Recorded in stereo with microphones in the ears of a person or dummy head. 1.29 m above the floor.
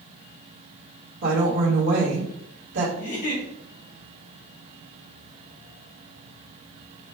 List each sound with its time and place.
1.2 s a woman speaking: 75° right (ahead or behind), 1.8 m
3.0 s a giggle: 40° left (ahead or behind), 2 m